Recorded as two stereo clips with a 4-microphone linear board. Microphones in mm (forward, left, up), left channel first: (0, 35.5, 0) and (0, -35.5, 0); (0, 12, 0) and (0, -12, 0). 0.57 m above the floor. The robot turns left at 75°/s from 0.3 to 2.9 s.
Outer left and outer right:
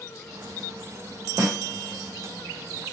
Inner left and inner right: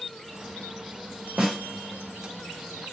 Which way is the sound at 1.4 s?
40° right (ahead or behind).